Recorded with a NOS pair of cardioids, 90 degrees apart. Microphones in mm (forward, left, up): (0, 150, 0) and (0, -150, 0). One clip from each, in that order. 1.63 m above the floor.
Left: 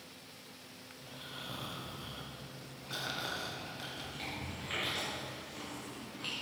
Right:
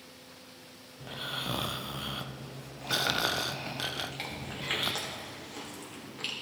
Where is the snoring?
50° right, 0.5 m.